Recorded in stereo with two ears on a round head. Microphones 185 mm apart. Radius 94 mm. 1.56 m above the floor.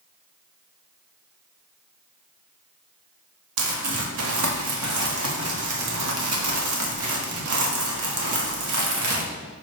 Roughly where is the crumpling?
Right.